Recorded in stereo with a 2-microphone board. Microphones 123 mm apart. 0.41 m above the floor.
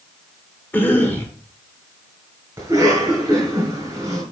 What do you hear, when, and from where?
0.7 s a cough: 15° left (ahead or behind), 1.3 m
2.6 s a cough: 25° right (ahead or behind), 4 m